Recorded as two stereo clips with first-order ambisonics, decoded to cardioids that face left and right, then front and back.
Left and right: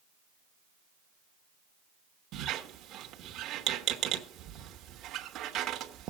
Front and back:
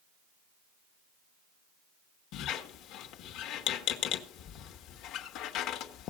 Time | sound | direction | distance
2.3 | a squeak | 40° right | 1.2 m